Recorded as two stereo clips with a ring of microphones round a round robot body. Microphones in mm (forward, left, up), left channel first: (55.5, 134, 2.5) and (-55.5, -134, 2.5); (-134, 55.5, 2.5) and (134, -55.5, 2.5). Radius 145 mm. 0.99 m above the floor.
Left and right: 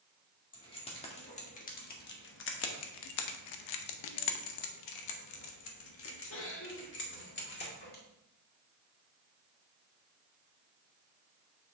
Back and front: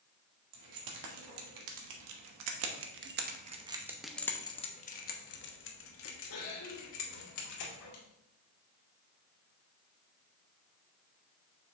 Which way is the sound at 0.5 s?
5° right.